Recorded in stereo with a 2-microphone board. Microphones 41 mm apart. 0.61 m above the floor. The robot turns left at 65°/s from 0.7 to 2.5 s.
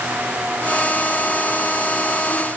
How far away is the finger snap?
I don't hear a finger snap.